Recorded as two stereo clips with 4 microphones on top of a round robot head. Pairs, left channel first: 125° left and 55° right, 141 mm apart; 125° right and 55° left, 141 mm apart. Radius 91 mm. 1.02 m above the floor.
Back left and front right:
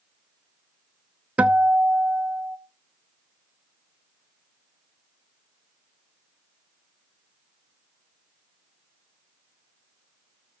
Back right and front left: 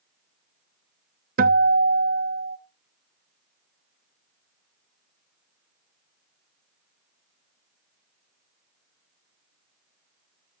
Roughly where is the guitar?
Ahead left.